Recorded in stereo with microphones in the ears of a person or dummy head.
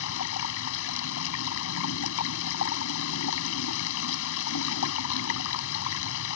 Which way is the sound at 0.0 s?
70° left (ahead or behind).